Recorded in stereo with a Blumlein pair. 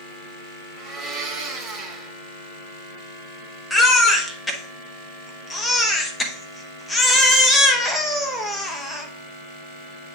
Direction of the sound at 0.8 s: 10° right.